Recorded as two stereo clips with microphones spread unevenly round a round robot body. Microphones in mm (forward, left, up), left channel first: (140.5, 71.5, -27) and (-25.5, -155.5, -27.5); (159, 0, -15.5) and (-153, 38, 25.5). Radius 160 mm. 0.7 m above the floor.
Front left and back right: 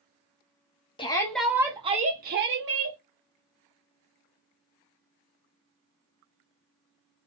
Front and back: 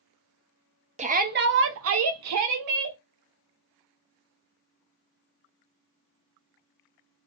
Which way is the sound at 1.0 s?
110° left.